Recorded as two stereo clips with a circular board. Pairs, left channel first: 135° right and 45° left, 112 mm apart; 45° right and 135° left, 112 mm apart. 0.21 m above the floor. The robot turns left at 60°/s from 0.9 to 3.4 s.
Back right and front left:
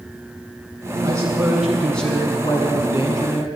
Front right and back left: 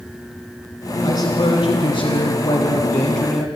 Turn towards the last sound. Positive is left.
turn(degrees=-140)